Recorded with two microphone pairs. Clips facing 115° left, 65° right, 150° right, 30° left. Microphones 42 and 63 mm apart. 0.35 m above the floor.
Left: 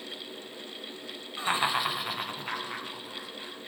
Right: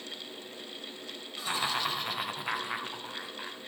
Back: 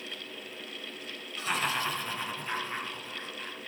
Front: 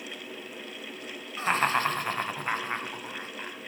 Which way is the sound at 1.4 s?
70° left.